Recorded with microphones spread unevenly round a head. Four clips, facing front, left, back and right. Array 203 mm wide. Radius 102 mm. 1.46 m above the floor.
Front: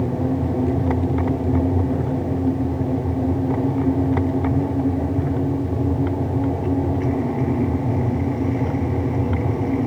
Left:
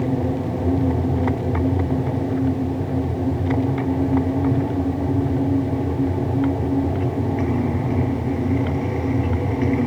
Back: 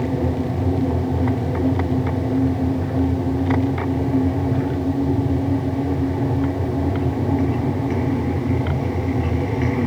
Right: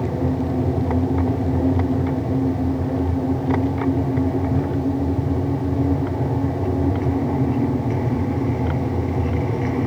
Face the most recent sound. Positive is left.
No sound to turn to.